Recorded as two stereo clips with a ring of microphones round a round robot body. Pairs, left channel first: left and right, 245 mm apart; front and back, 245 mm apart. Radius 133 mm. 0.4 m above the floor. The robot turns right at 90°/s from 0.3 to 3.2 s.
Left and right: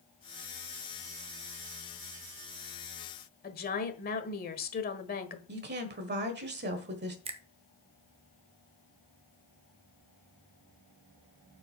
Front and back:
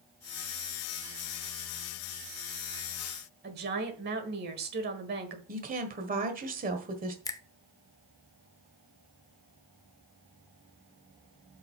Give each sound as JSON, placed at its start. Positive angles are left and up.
{"t": 3.4, "sound": "a woman speaking", "azimuth_deg": 135, "distance_m": 1.4}
{"t": 5.5, "sound": "a woman speaking", "azimuth_deg": -130, "distance_m": 1.5}
{"t": 7.2, "sound": "a finger snap", "azimuth_deg": -55, "distance_m": 0.6}